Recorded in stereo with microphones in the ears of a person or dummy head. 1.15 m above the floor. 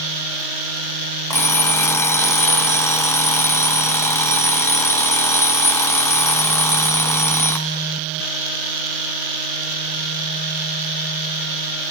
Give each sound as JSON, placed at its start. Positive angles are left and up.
{"t": 1.3, "sound": "an alarm clock", "side_deg": 20, "distance_m": 0.6}